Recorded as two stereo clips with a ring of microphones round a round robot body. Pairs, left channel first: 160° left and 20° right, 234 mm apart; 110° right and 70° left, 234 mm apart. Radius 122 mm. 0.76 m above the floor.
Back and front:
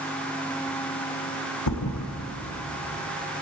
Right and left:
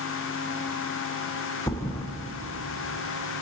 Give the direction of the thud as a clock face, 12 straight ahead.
6 o'clock.